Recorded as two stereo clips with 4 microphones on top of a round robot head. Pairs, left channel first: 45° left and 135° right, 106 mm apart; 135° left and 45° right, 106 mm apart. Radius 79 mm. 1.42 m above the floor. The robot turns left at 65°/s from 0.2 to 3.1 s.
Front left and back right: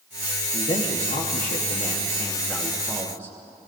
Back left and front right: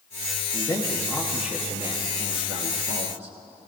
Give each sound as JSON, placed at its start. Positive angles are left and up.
{"t": 0.5, "sound": "a man speaking", "azimuth_deg": 90, "distance_m": 1.2}